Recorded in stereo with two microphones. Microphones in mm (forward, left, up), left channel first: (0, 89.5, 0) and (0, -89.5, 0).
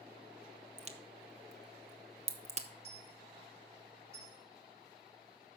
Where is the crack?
40° right (ahead or behind), 0.9 m.